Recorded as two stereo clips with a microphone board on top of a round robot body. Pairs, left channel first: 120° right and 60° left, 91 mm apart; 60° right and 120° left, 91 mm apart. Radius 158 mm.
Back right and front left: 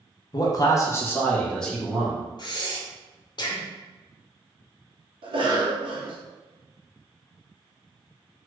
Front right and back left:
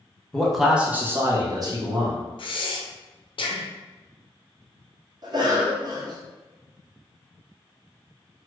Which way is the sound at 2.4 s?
80° right.